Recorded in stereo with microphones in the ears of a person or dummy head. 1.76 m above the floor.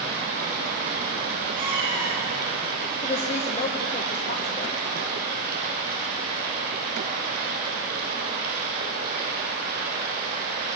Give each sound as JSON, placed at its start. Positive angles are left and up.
{"t": 0.0, "sound": "running water", "side_deg": -55, "distance_m": 8.0}
{"t": 1.6, "sound": "a cat meowing", "side_deg": -25, "distance_m": 7.0}
{"t": 3.0, "sound": "a woman speaking", "side_deg": 40, "distance_m": 1.5}